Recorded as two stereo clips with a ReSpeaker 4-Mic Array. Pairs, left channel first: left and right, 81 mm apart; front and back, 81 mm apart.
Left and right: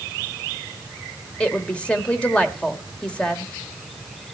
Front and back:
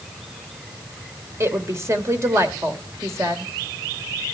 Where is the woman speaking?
155° left, 1.5 m.